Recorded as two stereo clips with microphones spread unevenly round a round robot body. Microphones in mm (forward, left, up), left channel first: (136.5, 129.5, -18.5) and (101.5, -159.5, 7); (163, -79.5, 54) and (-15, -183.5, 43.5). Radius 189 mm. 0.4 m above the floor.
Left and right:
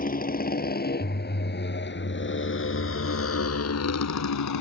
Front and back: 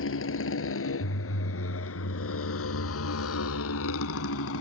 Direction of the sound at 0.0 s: 20° left.